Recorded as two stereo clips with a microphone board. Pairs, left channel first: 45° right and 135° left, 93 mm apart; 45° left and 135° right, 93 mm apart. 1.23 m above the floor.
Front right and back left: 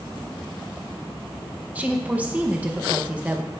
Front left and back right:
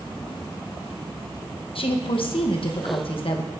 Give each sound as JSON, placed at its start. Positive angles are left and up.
{"t": 1.8, "sound": "a woman speaking", "azimuth_deg": 60, "distance_m": 0.7}